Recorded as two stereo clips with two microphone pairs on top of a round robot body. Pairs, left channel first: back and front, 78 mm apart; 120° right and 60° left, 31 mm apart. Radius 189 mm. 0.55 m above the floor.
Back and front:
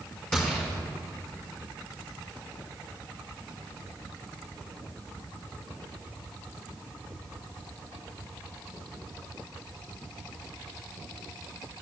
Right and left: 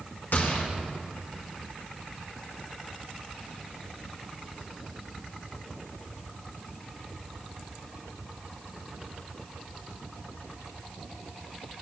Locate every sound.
0.3 s a gunshot: 100° right, 2.5 m